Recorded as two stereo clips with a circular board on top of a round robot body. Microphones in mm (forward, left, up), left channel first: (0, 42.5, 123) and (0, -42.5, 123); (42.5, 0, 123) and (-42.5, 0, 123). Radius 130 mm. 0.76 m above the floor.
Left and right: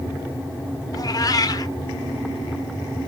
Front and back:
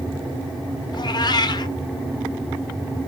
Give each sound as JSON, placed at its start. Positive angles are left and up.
{"t": 0.9, "sound": "a cat meowing", "azimuth_deg": 40, "distance_m": 0.9}